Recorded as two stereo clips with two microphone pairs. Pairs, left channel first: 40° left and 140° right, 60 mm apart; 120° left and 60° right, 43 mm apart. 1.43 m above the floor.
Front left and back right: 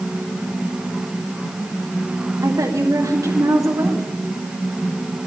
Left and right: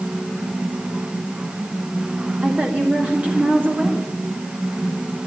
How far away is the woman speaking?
About 1.8 m.